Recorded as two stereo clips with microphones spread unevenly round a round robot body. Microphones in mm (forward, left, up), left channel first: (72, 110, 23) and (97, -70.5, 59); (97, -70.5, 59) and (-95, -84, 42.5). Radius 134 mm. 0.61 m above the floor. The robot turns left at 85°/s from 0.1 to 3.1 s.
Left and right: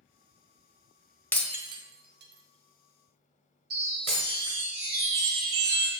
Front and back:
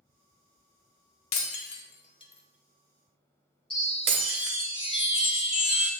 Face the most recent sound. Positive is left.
turn(degrees=-60)